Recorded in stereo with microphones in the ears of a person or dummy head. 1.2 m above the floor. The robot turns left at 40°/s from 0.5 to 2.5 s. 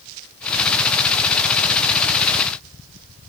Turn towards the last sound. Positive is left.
No sound to turn to.